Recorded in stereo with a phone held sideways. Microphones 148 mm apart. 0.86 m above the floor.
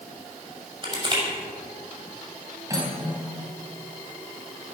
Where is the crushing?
35° right (ahead or behind), 6 m.